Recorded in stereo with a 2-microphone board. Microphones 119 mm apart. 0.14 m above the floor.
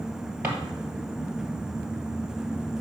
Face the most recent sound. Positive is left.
turn(degrees=-10)  # may be behind; listen again after turning